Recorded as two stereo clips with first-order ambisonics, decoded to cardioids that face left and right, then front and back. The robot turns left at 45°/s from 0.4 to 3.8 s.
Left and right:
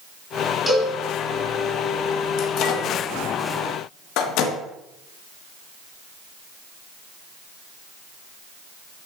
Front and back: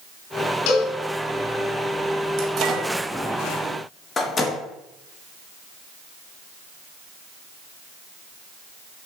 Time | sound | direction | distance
0.7 | a cowbell | straight ahead | 2.5 m
2.4 | a microwave | 135° left | 1.4 m